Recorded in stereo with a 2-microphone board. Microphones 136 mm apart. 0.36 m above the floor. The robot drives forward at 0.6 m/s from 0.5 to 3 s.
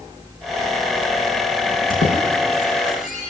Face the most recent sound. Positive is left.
turn(degrees=75)  # may be behind; listen again after turning